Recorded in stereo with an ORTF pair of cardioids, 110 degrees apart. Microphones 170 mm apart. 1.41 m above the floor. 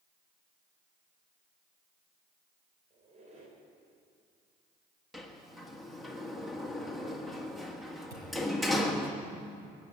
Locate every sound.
2.9 s a squeak: 45° right, 4 m
5.1 s a sliding door: straight ahead, 1.5 m
8.1 s a thud: 20° right, 7 m